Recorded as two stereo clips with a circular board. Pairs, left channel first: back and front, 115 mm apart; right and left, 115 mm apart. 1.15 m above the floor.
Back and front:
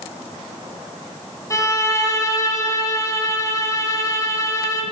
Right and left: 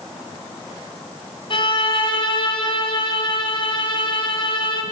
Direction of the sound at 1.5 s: 120° right.